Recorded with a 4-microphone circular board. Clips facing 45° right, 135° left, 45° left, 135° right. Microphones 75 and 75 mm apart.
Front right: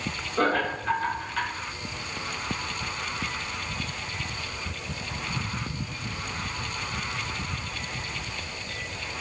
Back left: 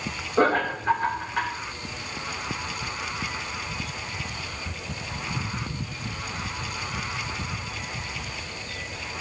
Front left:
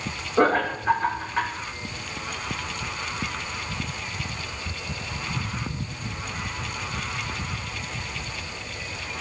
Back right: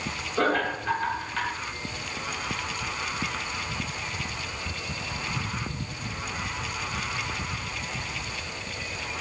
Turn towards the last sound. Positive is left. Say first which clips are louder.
# back left 3 dB, front left 4 dB
turn(degrees=90)